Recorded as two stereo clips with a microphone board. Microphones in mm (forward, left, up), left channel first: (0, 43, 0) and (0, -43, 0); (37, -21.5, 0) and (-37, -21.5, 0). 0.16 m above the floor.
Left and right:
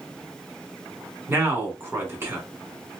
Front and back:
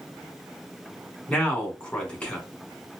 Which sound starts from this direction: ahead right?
A man speaking, at 1.3 s.